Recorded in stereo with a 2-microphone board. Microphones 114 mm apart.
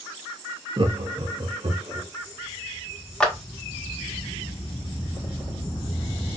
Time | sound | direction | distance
0.8 | laughter | 45° right (ahead or behind) | 0.5 m
3.2 | a clap | 5° left (ahead or behind) | 0.9 m